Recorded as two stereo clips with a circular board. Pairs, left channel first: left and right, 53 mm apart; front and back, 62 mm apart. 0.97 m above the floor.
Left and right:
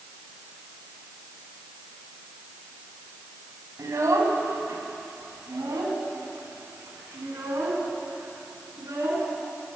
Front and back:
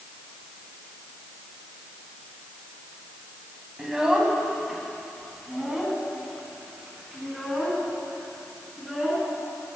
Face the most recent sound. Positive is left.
turn(degrees=-90)